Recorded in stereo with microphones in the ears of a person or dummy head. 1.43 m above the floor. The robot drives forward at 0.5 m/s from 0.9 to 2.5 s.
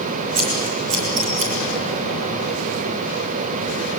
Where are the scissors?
35° right (ahead or behind), 6.5 m.